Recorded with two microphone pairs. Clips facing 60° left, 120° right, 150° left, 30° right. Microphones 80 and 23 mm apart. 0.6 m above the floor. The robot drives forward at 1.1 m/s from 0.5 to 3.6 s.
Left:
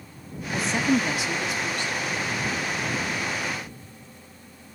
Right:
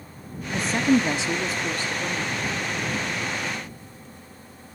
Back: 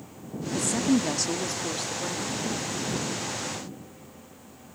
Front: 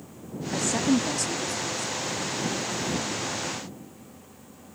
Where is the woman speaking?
20° right, 0.7 m; by 2.5 s 175° right, 1.8 m.